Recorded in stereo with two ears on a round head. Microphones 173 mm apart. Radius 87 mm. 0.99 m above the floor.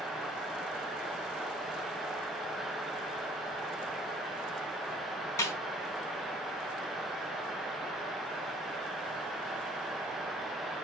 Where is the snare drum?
15° left (ahead or behind), 4.5 m.